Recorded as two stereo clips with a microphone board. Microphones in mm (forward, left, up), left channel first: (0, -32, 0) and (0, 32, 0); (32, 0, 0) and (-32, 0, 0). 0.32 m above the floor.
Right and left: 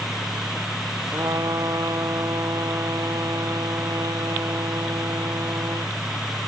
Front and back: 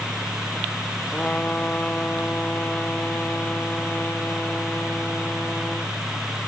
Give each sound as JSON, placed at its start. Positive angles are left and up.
{"t": 1.1, "sound": "a trumpet", "azimuth_deg": 65}